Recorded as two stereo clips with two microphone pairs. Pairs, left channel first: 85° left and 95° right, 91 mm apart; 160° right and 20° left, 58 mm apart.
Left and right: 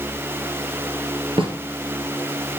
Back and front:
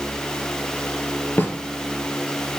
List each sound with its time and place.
1.4 s a snare drum: 105° right, 1.8 m